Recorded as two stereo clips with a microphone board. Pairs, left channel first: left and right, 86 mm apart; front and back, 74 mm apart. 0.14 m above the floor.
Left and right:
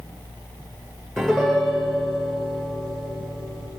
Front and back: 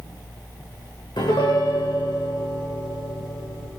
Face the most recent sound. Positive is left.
turn(degrees=5)